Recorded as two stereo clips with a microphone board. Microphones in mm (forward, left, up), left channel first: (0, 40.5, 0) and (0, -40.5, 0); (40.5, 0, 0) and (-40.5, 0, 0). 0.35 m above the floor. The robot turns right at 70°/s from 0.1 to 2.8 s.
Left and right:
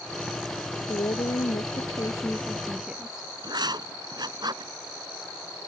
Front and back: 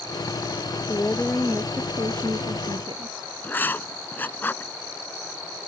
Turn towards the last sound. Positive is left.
turn(degrees=-65)